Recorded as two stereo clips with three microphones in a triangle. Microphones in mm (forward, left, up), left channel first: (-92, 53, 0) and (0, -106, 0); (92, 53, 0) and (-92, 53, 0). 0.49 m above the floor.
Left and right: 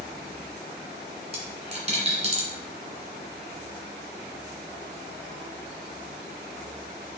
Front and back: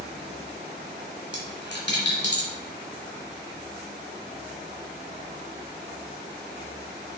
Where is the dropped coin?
5° right, 2.5 m.